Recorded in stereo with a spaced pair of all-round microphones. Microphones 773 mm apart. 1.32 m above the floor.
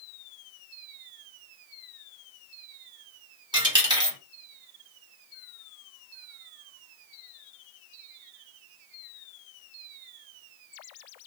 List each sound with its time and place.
3.5 s a dropped coin: 5° right (ahead or behind), 1.2 m